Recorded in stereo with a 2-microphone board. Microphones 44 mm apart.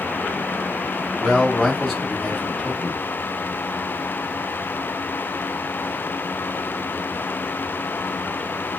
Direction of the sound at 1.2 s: 10° left (ahead or behind).